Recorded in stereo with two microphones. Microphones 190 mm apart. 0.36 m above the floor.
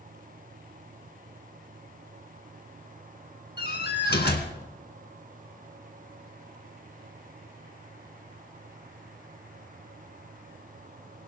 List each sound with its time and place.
3.6 s a door slam: 60° left (ahead or behind), 2.5 m